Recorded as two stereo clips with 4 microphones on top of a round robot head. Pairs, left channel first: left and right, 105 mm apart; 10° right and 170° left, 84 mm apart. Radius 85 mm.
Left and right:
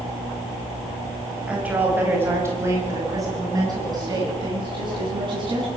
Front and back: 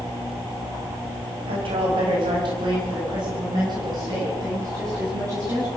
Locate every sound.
1.5 s a woman speaking: 170° right, 5.5 m; by 5.7 s 130° right, 9 m